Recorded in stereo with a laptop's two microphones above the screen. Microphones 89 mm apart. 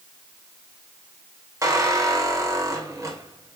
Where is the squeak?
35° right (ahead or behind), 3 m.